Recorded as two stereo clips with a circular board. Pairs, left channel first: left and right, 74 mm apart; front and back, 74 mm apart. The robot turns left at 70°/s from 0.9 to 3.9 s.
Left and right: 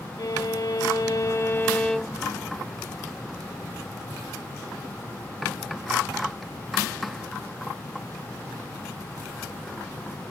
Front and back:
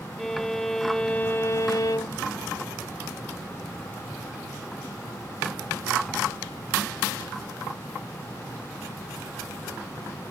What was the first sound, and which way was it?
A violin, 85° left.